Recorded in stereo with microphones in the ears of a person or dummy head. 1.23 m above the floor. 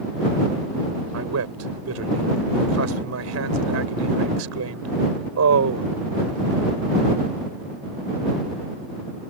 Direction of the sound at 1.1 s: 80° right.